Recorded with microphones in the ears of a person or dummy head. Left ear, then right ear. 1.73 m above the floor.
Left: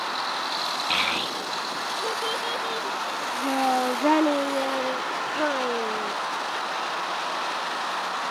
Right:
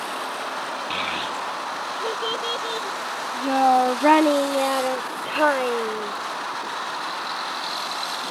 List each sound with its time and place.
0.9 s a child speaking: 15° left (ahead or behind); by 6.1 s 40° right (ahead or behind)